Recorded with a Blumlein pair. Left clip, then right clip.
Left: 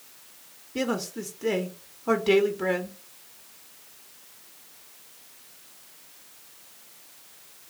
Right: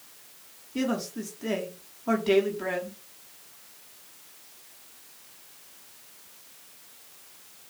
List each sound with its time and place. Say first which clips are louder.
0.8 s a man speaking: left 1 dB; 5° left, 0.6 m